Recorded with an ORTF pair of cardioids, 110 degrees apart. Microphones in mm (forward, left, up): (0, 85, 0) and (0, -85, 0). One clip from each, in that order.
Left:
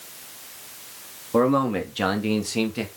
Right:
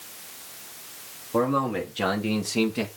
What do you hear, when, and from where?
1.3 s a man speaking: 30° left, 3.5 m; by 2.9 s 5° right, 2.5 m